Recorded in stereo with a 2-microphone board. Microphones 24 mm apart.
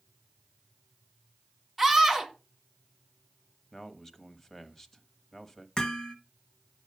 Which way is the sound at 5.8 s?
30° left (ahead or behind).